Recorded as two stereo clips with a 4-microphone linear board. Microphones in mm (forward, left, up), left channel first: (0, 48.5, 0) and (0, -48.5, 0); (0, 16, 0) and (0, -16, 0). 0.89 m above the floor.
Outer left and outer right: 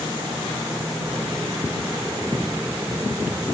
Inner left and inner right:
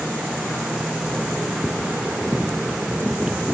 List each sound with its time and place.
Only background noise.